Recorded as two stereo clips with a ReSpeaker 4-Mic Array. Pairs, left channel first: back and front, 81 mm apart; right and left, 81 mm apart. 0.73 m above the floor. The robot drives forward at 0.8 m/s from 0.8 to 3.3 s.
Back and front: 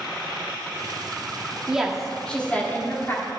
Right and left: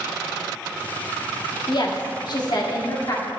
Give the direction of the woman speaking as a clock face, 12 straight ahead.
3 o'clock.